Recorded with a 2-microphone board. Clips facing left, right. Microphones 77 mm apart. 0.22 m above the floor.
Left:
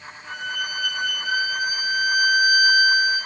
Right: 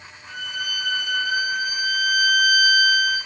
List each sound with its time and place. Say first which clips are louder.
0.3 s a violin: left 2 dB; 45° left (ahead or behind), 4 m